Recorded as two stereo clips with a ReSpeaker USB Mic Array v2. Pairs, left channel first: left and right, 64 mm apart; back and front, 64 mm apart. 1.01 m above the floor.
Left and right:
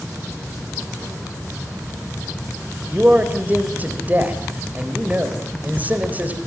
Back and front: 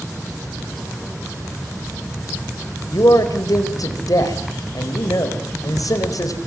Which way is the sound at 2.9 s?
155° right.